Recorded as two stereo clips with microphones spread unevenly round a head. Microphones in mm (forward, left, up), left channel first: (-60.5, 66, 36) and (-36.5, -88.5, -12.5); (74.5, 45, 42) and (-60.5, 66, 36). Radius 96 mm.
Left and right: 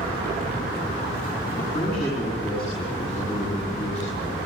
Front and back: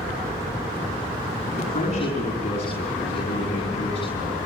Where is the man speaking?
30° left, 7 m; by 4.5 s 40° left, 8 m.